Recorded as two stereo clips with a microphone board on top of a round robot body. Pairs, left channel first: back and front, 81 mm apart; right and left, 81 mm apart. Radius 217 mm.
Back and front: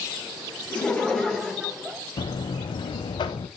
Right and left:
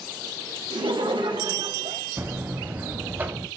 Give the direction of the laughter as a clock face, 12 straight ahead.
9 o'clock.